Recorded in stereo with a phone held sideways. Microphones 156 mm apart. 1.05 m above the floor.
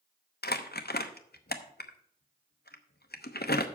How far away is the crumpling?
About 0.9 m.